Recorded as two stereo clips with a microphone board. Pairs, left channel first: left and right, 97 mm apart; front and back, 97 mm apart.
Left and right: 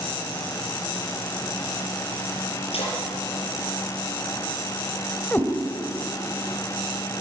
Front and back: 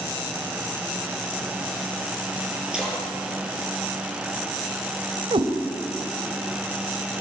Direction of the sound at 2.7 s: 100° left.